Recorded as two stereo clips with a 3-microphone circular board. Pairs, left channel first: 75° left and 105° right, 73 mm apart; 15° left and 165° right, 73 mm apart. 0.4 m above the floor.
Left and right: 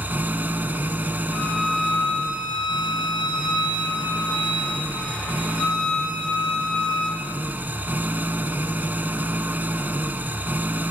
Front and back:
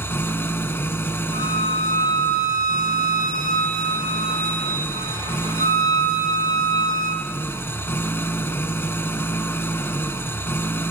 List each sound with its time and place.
0.0 s an engine running: 40° right, 1.0 m
1.3 s a violin: straight ahead, 5.5 m